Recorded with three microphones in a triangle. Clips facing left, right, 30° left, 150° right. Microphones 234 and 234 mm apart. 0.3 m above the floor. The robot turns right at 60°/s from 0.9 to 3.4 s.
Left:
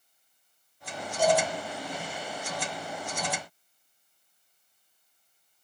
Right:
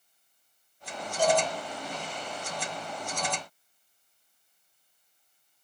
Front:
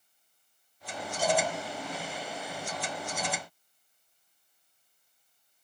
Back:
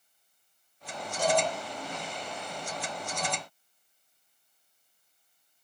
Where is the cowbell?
175° right, 2.5 m; by 1.4 s 160° right, 2.5 m.